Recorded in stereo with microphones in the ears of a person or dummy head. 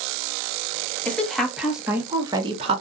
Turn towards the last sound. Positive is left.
turn(degrees=-45)  # may be behind; listen again after turning